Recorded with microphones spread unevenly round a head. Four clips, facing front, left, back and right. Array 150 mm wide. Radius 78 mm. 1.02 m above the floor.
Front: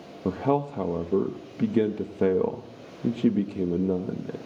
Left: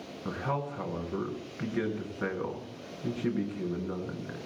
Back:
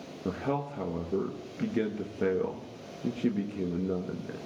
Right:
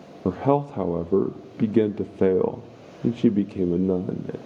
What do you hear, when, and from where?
0.2 s a man speaking: 70° right, 0.9 m